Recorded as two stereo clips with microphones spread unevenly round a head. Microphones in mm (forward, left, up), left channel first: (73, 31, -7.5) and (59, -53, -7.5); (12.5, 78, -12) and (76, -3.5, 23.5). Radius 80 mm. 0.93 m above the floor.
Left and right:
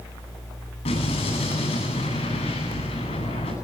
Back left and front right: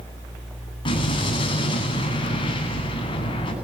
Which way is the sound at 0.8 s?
90° left.